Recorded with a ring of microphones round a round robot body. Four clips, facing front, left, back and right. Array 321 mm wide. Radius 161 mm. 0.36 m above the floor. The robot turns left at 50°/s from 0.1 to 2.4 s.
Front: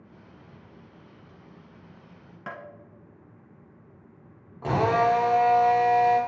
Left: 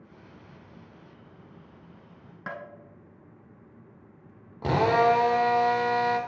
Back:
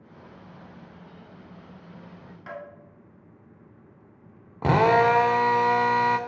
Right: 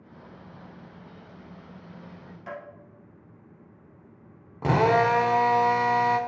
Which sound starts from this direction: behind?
A drill, at 4.6 s.